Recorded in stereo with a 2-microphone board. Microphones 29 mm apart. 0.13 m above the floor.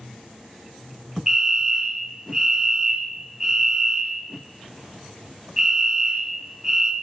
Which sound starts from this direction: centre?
A fire alarm, at 1.3 s.